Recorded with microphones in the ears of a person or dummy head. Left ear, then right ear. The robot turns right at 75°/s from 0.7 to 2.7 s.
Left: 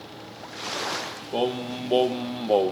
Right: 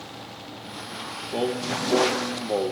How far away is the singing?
About 1.0 m.